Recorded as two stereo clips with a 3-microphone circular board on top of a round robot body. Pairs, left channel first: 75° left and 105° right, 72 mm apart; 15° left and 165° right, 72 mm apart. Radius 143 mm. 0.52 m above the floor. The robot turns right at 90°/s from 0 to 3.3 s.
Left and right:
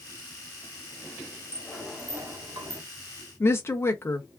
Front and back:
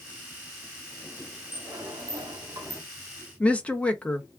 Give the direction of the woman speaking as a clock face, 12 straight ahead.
9 o'clock.